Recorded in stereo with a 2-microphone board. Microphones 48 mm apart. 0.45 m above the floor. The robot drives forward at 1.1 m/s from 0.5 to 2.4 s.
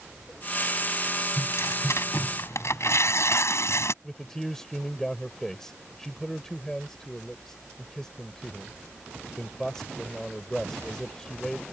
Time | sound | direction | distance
1.4 | tearing paper | 70° left (ahead or behind) | ?
4.0 | a man speaking | 10° left (ahead or behind) | ?